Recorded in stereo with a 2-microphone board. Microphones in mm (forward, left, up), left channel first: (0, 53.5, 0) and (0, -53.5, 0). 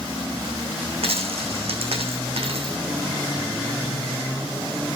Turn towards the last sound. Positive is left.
turn(degrees=-75)  # may be behind; listen again after turning